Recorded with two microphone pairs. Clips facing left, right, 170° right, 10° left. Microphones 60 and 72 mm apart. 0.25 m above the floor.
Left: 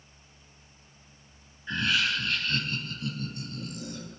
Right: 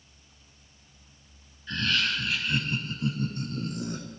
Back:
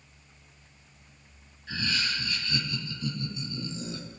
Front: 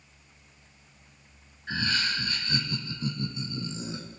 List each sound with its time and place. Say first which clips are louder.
1.7 s laughter: left 1 dB, front 3 dB; 30° left, 1.2 m; by 4.1 s 55° right, 2 m